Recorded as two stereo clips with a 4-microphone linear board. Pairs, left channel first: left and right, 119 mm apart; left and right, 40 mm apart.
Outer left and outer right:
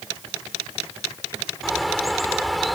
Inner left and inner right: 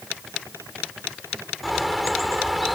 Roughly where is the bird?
Centre.